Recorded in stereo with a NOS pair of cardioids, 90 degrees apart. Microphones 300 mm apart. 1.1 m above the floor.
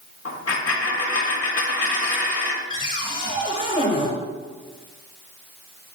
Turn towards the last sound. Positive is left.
turn(degrees=30)